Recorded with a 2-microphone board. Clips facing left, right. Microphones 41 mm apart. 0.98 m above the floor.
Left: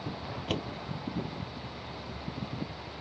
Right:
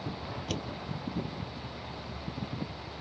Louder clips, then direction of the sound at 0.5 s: Left 4 dB; 25° left (ahead or behind).